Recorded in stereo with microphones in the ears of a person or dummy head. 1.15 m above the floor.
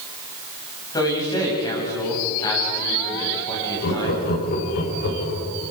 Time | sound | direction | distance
0.9 | a man speaking | 20° left (ahead or behind) | 9 m
3.8 | laughter | 50° left (ahead or behind) | 5.5 m